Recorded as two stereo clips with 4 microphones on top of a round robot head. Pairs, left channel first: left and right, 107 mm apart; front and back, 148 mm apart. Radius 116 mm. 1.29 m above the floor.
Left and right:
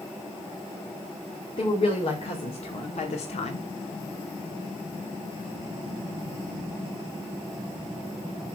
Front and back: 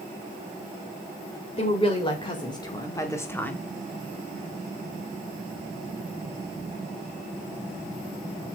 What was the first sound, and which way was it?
A woman speaking, 50° left.